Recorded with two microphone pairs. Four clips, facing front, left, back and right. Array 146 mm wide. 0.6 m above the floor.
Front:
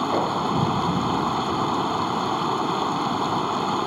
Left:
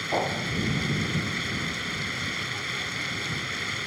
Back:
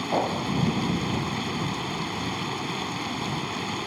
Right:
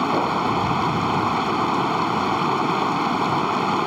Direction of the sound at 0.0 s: 55° right.